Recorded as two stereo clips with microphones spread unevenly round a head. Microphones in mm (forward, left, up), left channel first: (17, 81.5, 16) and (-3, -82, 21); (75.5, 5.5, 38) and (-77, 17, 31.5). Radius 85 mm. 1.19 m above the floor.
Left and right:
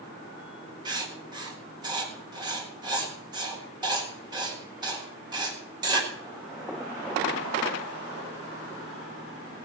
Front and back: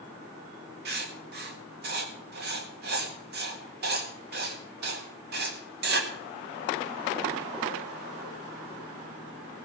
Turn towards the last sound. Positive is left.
turn(degrees=-165)